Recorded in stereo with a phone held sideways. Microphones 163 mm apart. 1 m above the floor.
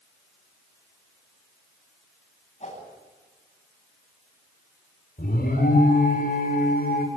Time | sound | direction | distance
2.6 | a whoosh | 45° left (ahead or behind) | 9 m
5.2 | an alarm | 70° left (ahead or behind) | 6 m